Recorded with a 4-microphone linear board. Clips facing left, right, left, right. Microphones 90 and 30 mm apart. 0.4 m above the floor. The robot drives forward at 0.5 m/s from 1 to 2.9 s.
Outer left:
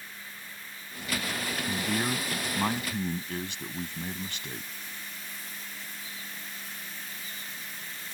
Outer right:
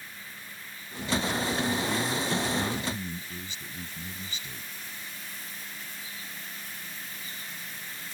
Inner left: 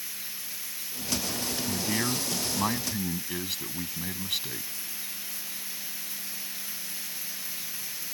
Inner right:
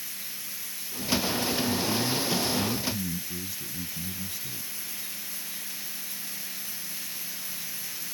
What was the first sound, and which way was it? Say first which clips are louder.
A man speaking: outer right 1 dB, inner right 2 dB; 60° left (ahead or behind).